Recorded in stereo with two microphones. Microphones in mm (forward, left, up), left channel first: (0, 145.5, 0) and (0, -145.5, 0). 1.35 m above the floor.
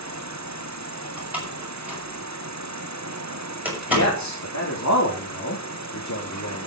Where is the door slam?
5° right (ahead or behind), 6 m.